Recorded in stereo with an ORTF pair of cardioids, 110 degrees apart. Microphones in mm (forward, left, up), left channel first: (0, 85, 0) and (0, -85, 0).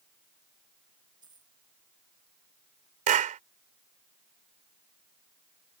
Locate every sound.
1.2 s a dropped coin: 25° right
3.1 s a clap: 50° right